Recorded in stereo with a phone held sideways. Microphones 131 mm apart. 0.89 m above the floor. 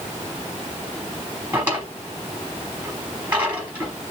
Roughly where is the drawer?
Centre.